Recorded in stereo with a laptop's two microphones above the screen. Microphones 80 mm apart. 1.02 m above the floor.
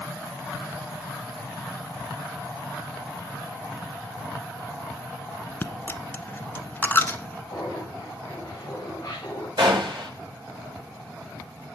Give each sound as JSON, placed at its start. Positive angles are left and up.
{"t": 5.6, "sound": "a dropped coin", "side_deg": 25, "distance_m": 1.1}
{"t": 7.5, "sound": "laughter", "side_deg": 35, "distance_m": 5.0}
{"t": 9.6, "sound": "a gunshot", "side_deg": -70, "distance_m": 6.0}